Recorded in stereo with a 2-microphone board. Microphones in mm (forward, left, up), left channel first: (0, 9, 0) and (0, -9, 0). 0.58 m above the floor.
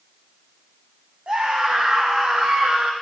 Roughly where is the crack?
I don't hear a crack.